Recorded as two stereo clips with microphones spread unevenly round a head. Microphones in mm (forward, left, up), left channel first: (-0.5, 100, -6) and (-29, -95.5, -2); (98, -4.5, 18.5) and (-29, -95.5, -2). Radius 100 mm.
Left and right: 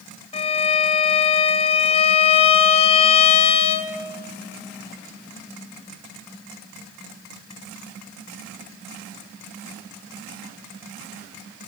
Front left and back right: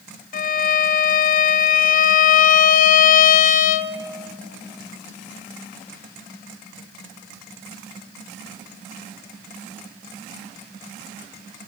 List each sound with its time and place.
0.3 s a violin: 35° left, 0.5 m